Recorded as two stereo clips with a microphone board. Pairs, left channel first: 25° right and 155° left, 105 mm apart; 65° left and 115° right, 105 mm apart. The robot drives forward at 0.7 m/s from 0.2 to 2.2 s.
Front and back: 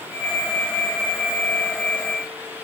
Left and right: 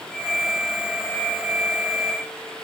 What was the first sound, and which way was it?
Only background noise.